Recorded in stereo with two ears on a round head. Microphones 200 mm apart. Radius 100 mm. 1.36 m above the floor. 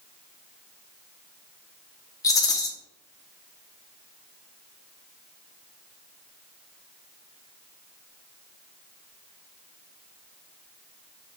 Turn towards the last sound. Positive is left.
turn(degrees=15)  # may be behind; listen again after turning